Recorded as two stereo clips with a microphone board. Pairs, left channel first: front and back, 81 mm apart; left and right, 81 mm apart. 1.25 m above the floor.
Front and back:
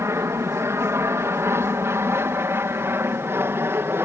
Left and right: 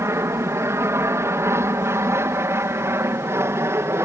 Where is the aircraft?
135° right.